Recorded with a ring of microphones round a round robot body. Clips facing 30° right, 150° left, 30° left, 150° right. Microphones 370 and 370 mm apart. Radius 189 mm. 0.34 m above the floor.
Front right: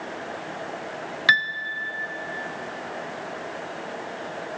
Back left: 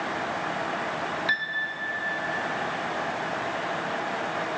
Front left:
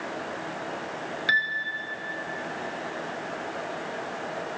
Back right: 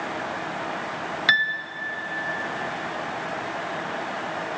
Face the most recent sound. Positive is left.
turn(degrees=-80)